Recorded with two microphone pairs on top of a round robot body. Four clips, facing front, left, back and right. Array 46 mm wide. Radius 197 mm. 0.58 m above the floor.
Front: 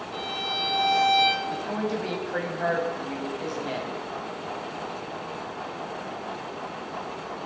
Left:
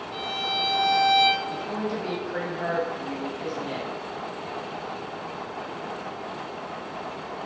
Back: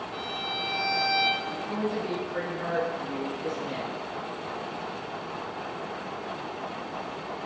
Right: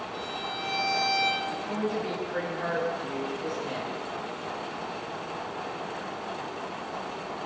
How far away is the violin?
About 3.5 m.